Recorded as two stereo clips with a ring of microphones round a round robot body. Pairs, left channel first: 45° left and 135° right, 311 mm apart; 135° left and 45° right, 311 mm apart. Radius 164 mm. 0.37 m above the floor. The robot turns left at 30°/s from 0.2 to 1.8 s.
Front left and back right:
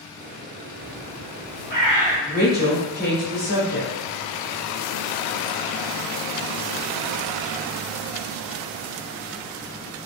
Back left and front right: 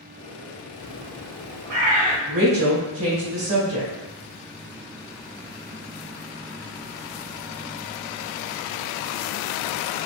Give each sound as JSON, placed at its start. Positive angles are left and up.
{"t": 0.8, "sound": "a bird", "azimuth_deg": 15, "distance_m": 1.9}
{"t": 2.3, "sound": "a woman speaking", "azimuth_deg": -10, "distance_m": 1.7}